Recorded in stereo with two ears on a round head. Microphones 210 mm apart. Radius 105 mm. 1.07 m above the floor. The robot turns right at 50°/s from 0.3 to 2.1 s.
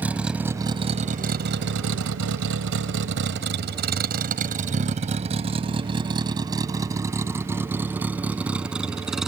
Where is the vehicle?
5° right (ahead or behind); by 9.3 s centre (ahead or behind).